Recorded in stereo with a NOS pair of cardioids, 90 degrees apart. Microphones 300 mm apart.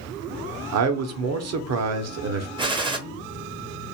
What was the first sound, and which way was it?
A man speaking, 55° right.